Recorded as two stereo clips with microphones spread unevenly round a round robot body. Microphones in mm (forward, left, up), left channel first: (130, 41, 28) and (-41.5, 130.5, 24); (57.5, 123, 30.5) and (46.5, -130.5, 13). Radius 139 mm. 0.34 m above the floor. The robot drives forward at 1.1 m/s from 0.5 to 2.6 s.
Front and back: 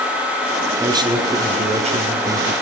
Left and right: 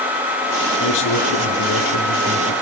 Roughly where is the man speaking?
Left.